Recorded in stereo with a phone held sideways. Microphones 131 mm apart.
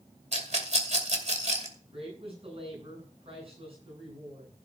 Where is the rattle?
60° right (ahead or behind), 2.5 m.